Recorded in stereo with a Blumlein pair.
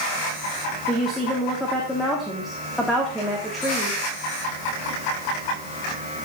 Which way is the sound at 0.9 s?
5° left.